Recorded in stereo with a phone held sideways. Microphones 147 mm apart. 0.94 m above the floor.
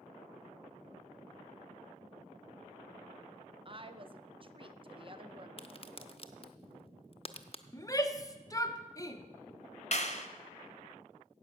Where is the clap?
50° left (ahead or behind), 1.0 m.